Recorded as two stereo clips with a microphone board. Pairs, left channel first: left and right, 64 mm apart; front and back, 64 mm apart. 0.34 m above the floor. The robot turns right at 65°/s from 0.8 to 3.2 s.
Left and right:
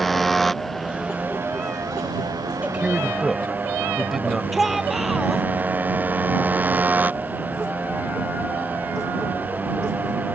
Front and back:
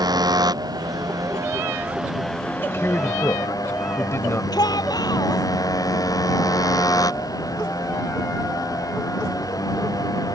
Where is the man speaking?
40° right; by 4.4 s straight ahead.